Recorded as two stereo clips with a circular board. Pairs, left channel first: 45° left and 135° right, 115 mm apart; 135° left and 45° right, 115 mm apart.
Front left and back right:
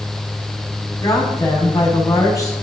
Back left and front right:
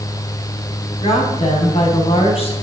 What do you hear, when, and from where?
1.0 s a woman speaking: 105° left, 5.5 m